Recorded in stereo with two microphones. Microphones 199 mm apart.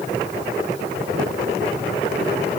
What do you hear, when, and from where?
Only background noise.